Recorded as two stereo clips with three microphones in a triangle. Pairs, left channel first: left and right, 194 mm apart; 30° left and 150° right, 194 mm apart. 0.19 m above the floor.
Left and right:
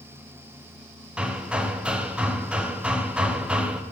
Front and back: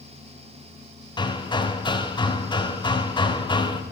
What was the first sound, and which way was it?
Hammering, 10° right.